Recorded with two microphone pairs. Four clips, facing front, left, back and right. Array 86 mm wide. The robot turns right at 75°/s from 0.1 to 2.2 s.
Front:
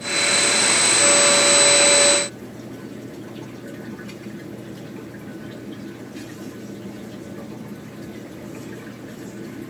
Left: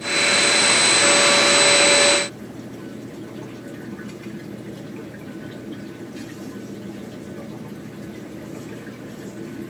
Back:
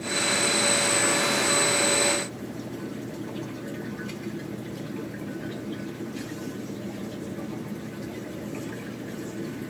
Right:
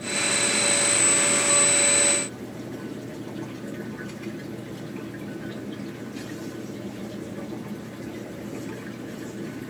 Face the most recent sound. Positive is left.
No sound to turn to.